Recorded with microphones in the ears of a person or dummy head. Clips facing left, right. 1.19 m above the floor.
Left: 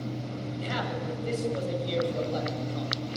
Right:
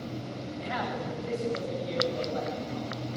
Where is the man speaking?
50° left (ahead or behind), 8 m; by 3.0 s 65° left (ahead or behind), 8 m.